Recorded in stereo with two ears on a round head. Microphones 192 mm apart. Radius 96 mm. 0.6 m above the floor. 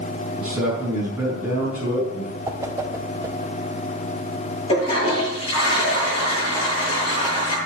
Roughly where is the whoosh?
Centre.